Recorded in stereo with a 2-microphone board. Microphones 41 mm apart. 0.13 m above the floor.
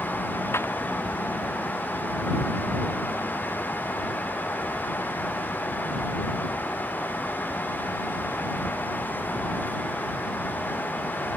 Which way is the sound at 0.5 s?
85° left.